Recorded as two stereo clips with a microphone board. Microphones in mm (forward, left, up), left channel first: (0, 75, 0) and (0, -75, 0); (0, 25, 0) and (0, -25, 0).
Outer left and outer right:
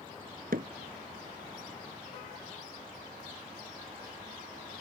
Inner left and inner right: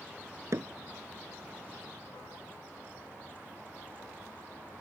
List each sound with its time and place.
0.5 s hammering: 75° right (ahead or behind)